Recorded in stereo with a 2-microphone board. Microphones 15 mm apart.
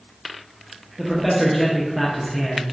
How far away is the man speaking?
About 0.5 m.